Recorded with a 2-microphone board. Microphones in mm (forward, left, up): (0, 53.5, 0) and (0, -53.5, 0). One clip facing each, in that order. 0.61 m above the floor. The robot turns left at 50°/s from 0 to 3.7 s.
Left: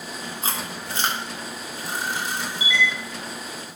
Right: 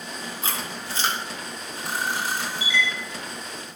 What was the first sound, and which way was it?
Chewing, 40° left (ahead or behind).